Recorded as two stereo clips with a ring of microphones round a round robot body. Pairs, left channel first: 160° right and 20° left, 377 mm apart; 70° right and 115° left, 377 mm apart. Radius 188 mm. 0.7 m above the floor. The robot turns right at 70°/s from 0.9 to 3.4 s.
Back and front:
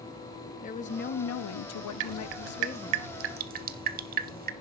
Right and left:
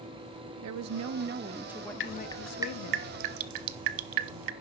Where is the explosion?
I don't hear an explosion.